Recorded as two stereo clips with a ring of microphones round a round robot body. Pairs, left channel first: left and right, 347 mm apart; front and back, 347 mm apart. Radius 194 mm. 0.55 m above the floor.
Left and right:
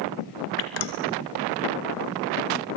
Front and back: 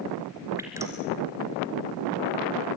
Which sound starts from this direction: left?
Dripping, at 0.6 s.